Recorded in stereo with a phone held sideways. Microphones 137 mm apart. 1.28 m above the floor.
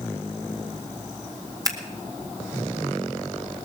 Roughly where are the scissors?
Right.